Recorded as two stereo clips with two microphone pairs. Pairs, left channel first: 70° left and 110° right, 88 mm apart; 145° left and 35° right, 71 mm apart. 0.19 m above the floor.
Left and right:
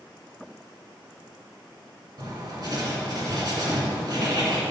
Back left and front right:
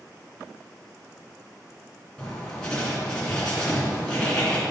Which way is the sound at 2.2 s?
135° right.